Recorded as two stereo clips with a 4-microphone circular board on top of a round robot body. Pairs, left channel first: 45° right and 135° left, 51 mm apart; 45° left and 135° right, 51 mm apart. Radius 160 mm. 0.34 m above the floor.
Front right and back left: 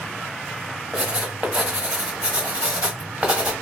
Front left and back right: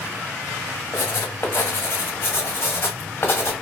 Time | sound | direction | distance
0.9 | writing | 75° left | 1.0 m